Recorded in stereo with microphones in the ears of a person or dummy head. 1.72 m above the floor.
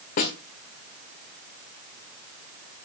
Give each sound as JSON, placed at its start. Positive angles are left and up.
{"t": 0.2, "sound": "a snare drum", "side_deg": 45, "distance_m": 2.0}